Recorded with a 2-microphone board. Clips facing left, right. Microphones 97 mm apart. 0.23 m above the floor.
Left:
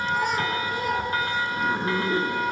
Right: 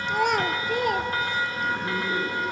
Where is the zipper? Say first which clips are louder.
Left 3 dB; 30° left (ahead or behind), 1.9 m.